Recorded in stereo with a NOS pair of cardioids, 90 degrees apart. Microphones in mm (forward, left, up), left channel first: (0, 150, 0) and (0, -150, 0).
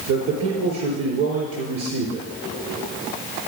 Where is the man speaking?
65° right, 4.5 m.